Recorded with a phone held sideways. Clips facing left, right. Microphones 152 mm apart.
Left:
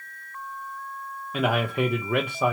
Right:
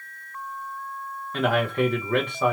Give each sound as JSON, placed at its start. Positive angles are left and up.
{"t": 1.3, "sound": "a man speaking", "side_deg": 10, "distance_m": 0.6}